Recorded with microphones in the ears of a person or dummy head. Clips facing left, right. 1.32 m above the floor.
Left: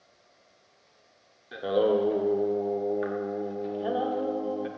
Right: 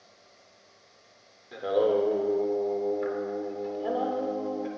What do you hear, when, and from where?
1.5 s singing: 5° left (ahead or behind), 0.6 m